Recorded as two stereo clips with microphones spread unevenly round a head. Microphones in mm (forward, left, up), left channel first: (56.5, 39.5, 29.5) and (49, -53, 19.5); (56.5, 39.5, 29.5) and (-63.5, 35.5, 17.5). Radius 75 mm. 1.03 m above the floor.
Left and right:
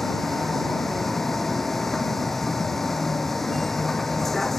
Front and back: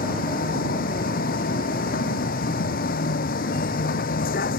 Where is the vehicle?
Straight ahead.